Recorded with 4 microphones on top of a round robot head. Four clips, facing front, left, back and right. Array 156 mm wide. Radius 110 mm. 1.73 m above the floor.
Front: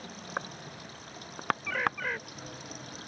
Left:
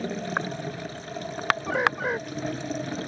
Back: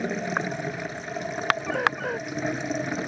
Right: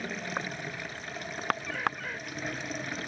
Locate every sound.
0.0 s running water: 150° left
1.7 s a bird: 125° left